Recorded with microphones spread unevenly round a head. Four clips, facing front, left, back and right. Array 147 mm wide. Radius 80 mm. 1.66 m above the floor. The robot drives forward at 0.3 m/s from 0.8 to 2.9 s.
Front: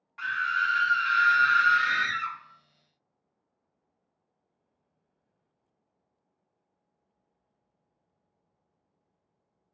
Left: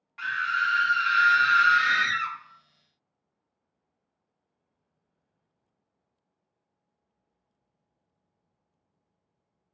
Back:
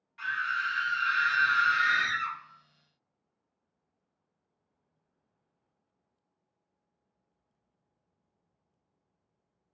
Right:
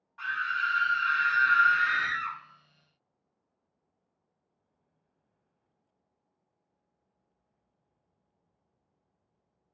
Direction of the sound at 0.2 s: 60° left.